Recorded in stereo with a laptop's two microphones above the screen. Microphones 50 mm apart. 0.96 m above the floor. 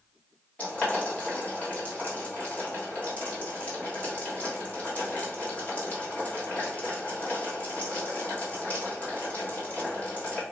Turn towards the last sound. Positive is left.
turn(degrees=30)  # may be behind; listen again after turning